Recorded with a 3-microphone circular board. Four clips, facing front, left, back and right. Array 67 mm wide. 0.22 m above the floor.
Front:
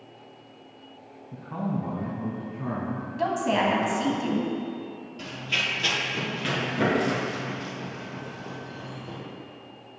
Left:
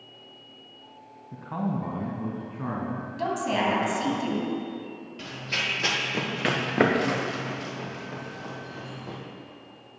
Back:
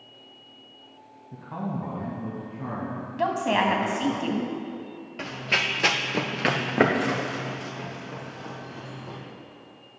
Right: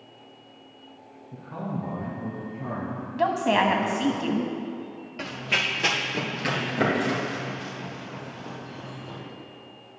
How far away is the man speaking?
About 1.2 m.